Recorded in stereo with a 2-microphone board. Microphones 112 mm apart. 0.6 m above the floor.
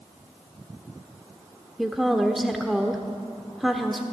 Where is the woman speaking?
Centre (ahead or behind), 1.2 m.